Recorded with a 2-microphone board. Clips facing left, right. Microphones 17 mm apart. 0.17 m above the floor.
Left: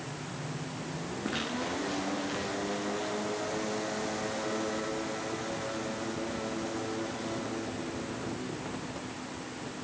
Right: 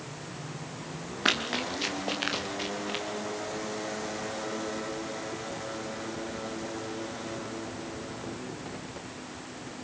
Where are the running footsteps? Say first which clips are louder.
Right 7 dB; 80° right, 5.5 m; by 3.0 s 85° right, 5 m.